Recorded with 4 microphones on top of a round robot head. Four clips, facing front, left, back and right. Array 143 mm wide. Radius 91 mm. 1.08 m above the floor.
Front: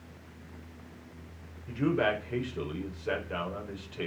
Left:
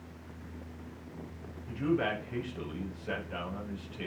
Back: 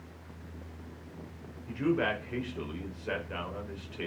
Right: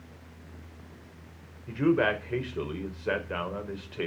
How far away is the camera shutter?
No camera shutter in this recording.